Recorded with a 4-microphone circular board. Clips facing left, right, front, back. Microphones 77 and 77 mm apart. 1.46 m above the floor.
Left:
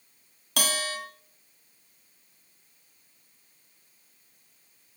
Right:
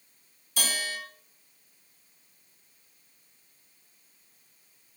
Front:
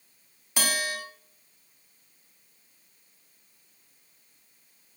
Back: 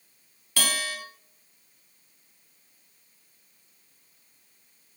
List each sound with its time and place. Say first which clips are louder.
0.6 s a bell: left 3 dB, front 1 dB; 70° left, 3.5 m